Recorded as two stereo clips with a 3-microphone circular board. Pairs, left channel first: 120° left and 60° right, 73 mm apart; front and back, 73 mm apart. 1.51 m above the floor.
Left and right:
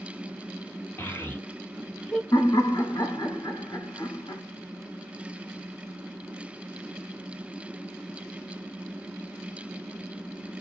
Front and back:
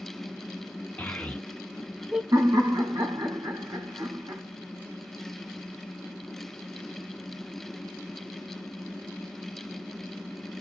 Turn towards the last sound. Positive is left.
turn(degrees=155)